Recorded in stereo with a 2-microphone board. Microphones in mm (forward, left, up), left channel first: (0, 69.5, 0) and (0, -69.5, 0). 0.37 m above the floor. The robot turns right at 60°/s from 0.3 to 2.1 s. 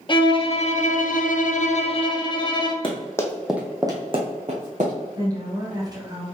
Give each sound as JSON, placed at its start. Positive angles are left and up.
{"t": 0.1, "sound": "a violin", "azimuth_deg": 40, "distance_m": 0.7}
{"t": 2.8, "sound": "running footsteps", "side_deg": 35, "distance_m": 1.3}
{"t": 5.2, "sound": "a woman speaking", "side_deg": -30, "distance_m": 2.0}